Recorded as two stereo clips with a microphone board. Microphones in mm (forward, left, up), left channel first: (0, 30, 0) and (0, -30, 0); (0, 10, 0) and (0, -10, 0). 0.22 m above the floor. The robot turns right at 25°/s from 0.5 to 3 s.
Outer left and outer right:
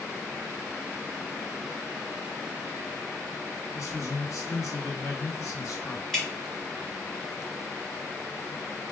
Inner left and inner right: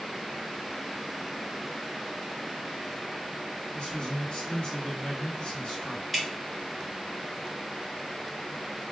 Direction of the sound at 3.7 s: 55° left (ahead or behind).